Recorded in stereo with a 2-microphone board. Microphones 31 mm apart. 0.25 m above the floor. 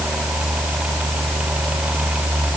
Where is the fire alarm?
I don't hear a fire alarm.